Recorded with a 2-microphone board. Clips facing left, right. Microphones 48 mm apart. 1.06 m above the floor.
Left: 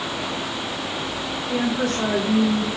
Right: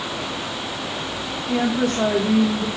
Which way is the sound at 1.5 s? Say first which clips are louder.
Right 2 dB; 45° right (ahead or behind).